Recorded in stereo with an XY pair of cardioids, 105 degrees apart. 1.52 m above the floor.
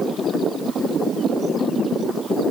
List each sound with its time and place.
Only background noise.